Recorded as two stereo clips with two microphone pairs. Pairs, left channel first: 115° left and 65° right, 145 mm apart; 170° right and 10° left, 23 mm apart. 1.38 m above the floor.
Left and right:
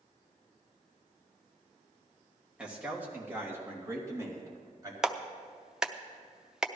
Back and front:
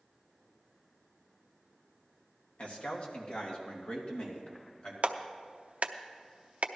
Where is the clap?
25° left, 0.6 m.